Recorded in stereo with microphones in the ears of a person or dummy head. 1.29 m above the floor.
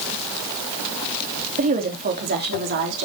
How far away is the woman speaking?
About 3 m.